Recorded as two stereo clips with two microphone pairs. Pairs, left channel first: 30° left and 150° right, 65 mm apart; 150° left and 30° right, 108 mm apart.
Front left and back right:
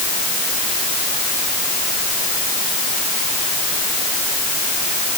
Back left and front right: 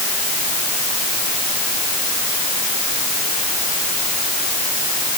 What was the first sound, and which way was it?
Only background noise.